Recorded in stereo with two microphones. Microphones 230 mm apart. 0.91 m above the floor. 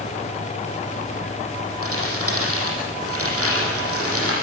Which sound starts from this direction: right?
Crumpling, at 1.8 s.